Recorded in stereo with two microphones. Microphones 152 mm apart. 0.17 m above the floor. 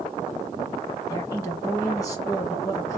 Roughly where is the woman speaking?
Left.